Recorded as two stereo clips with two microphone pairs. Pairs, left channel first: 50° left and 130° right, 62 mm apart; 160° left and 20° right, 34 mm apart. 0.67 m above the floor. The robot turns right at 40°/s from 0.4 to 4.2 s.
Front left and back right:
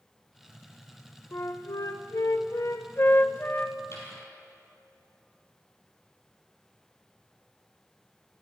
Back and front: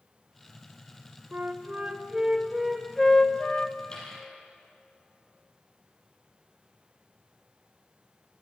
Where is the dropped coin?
95° left, 5 m; by 4.2 s 105° left, 5 m.